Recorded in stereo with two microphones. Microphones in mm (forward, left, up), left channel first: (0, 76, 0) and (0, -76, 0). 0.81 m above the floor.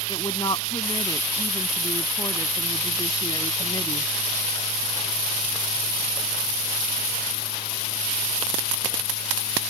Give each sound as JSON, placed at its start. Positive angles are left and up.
{"t": 0.1, "sound": "a woman speaking", "side_deg": 35}